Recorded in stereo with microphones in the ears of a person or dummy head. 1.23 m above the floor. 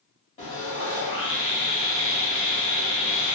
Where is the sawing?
40° left (ahead or behind), 1.1 m.